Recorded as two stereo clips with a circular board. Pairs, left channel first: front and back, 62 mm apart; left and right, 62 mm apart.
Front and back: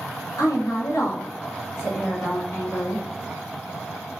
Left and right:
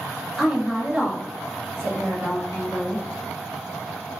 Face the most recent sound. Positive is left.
turn(degrees=-50)